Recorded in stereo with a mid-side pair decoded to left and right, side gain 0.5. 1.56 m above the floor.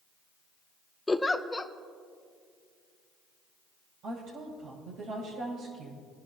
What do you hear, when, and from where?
1.1 s a giggle: 15° left, 0.9 m
4.0 s a woman speaking: 70° right, 7 m